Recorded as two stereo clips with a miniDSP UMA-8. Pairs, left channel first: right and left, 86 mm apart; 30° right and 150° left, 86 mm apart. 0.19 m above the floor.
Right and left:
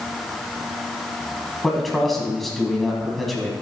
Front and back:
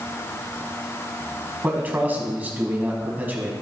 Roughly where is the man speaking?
Behind.